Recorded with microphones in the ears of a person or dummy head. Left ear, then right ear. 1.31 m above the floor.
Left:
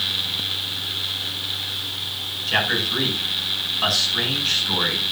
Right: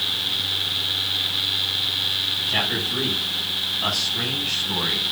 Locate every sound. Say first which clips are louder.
2.5 s a man speaking: left 2 dB; 60° left (ahead or behind), 7.5 m